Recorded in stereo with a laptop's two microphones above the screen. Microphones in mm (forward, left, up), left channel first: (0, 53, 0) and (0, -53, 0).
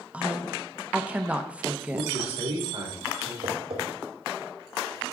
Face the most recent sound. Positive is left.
turn(degrees=-80)